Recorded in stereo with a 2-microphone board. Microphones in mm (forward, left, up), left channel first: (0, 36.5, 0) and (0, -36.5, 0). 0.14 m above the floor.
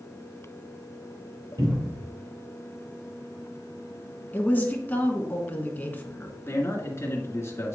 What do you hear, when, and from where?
1.6 s a cupboard door: 65° right (ahead or behind), 4 m
4.3 s a woman speaking: 25° left (ahead or behind), 1.5 m
6.5 s a man speaking: 40° left (ahead or behind), 1.9 m